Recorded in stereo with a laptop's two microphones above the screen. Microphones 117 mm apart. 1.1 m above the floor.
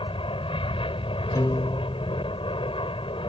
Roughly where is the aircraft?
Left.